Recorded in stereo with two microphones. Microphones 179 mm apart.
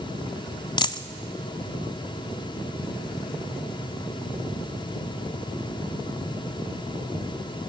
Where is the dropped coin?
25° left (ahead or behind), 0.5 m.